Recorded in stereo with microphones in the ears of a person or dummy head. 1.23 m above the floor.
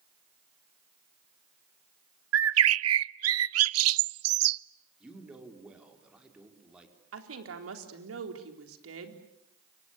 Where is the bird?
80° right, 0.5 m.